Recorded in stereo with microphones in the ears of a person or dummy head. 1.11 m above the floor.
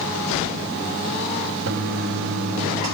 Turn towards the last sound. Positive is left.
turn(degrees=-60)  # may be behind; listen again after turning